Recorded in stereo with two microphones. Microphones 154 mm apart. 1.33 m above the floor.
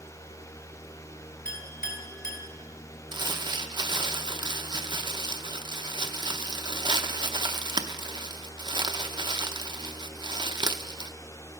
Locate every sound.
1.4 s a clink: 75° left (ahead or behind), 3 m
3.1 s crumpling: 30° right (ahead or behind), 0.6 m